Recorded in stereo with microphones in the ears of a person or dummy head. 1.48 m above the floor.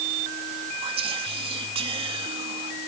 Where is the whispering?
30° right (ahead or behind), 1.9 m.